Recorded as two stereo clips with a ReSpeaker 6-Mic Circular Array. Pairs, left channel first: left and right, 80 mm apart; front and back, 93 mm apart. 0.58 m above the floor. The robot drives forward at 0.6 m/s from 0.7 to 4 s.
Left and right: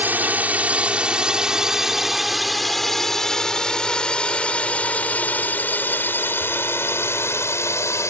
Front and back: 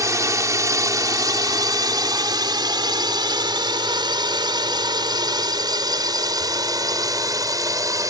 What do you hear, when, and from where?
0.0 s a drone: 145° right; by 8.1 s 135° left